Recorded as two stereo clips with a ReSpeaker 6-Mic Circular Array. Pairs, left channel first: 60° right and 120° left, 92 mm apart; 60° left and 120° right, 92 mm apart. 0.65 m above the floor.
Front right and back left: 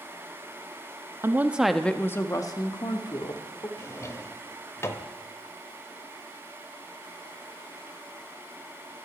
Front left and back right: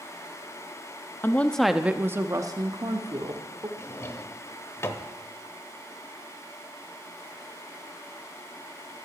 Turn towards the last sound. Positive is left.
turn(degrees=0)